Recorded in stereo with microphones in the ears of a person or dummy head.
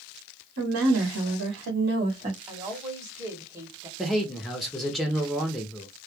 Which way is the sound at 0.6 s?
85° right.